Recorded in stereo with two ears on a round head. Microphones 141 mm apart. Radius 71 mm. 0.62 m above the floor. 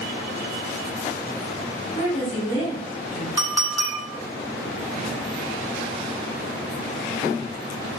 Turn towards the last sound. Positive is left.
turn(degrees=-25)  # may be behind; listen again after turning